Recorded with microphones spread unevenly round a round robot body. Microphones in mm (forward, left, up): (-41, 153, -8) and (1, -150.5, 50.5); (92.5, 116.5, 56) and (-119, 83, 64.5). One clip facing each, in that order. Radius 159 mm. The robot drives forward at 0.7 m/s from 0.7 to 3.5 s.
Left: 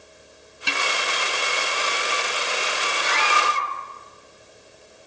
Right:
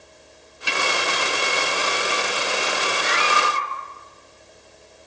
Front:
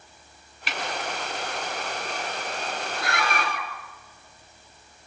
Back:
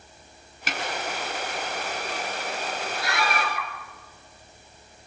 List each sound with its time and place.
0.7 s a snare drum: 145° left, 4.5 m
3.0 s a scream: 50° left, 7 m